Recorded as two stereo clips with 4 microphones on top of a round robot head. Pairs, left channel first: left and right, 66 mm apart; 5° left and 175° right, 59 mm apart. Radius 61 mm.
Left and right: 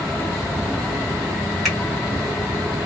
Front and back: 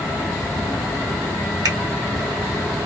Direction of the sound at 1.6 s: Straight behind.